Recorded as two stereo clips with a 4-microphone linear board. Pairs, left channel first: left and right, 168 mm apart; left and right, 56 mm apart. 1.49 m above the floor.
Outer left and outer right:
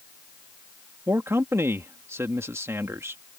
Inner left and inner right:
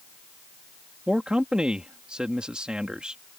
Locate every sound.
1.1 s a man speaking: 15° right (ahead or behind)